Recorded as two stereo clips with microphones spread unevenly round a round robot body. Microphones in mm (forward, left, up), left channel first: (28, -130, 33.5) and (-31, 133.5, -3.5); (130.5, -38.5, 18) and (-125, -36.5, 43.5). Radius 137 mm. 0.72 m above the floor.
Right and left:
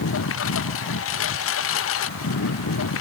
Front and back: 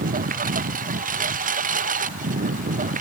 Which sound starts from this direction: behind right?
A lawn mower, at 0.0 s.